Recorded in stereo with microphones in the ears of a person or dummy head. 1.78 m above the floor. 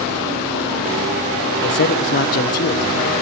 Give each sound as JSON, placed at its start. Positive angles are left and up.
{"t": 1.6, "sound": "a man speaking", "side_deg": 50, "distance_m": 1.2}